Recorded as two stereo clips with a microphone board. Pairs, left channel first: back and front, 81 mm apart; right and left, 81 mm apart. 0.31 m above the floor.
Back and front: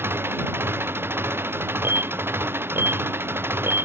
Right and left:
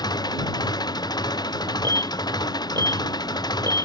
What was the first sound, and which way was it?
An engine running, 60° right.